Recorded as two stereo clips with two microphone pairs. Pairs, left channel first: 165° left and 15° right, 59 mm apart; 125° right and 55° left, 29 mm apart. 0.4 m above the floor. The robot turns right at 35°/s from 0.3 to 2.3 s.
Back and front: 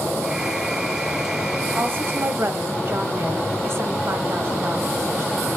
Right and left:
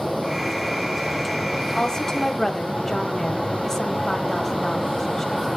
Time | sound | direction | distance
1.8 | a woman speaking | 70° right | 1.7 m